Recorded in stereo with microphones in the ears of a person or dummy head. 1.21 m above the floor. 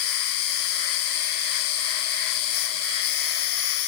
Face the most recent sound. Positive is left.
turn(degrees=55)  # may be behind; listen again after turning